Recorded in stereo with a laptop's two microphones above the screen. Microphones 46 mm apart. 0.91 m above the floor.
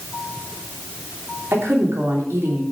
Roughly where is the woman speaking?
Right.